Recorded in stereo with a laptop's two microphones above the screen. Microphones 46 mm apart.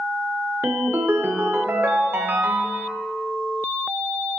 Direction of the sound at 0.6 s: 55° right (ahead or behind).